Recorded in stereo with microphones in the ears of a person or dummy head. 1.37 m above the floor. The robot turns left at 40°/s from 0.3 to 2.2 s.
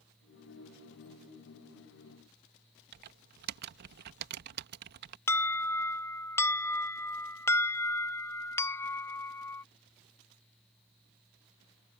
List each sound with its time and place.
2.9 s typing on a keyboard: 55° right (ahead or behind)
5.3 s an alarm: 15° left (ahead or behind)